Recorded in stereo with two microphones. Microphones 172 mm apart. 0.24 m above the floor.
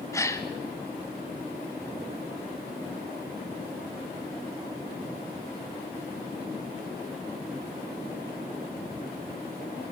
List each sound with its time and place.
0.1 s a gasp: 15° left (ahead or behind), 1.2 m